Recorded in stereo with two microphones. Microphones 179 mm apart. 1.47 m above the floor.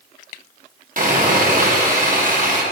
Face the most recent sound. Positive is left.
turn(degrees=-50)  # may be behind; listen again after turning